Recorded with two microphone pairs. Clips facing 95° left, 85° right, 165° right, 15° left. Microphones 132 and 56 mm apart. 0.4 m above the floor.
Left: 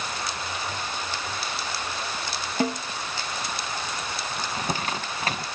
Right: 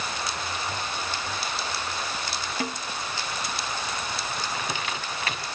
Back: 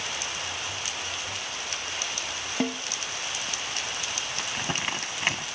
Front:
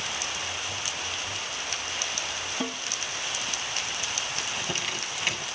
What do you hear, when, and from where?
2.6 s a snare drum: 155° left, 1.9 m
4.4 s crumpling: 145° left, 0.9 m